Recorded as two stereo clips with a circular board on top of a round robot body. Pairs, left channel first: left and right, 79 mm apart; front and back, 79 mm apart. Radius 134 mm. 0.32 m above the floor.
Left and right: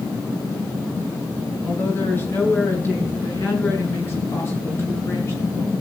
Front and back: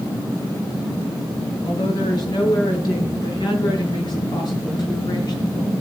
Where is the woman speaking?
25° left, 6.5 m; by 5.7 s 35° left, 9 m.